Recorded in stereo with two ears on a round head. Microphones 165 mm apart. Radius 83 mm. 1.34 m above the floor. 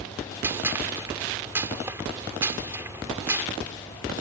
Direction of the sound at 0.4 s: 15° right (ahead or behind).